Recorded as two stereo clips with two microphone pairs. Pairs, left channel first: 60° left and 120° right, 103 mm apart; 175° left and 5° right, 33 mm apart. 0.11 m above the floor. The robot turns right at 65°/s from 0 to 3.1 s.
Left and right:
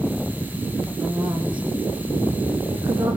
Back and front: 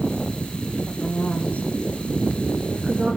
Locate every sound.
0.9 s a woman speaking: 160° left, 6.5 m; by 3.2 s 55° right, 6.5 m